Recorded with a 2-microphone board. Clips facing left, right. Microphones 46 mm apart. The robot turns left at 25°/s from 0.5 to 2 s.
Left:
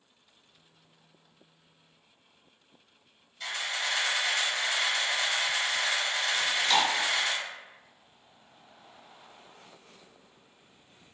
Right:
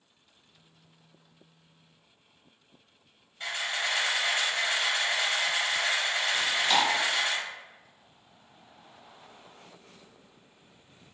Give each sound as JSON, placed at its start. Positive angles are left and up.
{"t": 3.4, "sound": "a camera shutter", "side_deg": -35, "distance_m": 1.5}
{"t": 6.3, "sound": "chewing", "side_deg": -10, "distance_m": 0.7}